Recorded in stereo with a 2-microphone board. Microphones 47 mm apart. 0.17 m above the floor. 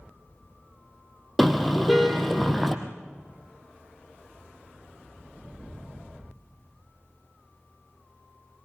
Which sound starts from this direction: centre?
A car horn, at 1.4 s.